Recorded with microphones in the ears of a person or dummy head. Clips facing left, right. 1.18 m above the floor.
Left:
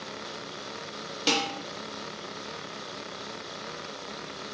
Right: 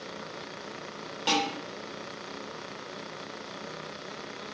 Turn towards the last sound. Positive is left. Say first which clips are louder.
# even
turn(degrees=25)  # may be behind; listen again after turning